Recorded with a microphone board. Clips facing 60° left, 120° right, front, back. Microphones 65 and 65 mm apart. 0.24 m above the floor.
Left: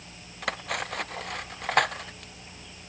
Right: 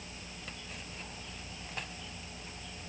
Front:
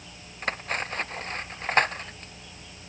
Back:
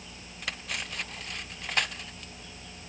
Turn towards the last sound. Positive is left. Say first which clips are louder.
# left 19 dB, front 7 dB
turn(degrees=50)